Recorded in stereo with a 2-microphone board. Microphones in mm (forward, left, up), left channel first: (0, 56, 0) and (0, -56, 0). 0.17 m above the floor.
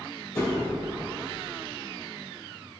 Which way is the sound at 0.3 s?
30° left (ahead or behind).